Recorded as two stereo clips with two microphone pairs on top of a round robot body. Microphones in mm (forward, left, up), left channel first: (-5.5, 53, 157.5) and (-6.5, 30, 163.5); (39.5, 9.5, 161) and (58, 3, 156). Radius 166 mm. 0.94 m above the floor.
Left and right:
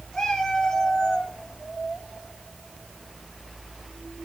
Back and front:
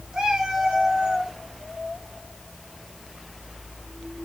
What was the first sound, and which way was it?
A cat meowing, 25° left.